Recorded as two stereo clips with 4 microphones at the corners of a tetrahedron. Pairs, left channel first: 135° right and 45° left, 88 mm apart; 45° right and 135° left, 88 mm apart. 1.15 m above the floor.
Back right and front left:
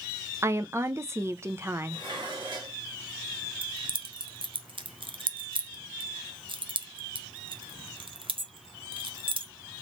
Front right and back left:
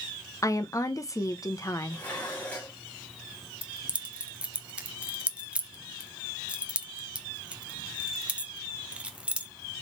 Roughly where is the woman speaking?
Ahead.